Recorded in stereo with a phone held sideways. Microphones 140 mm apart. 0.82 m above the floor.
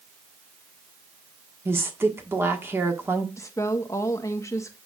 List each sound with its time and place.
1.6 s a woman speaking: 20° right (ahead or behind), 1.6 m
3.4 s a woman speaking: 25° left (ahead or behind), 1.0 m